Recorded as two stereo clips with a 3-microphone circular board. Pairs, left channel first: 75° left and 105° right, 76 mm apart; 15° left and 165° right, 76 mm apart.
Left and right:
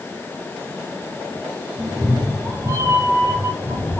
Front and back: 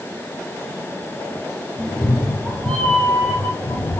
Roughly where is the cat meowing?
Right.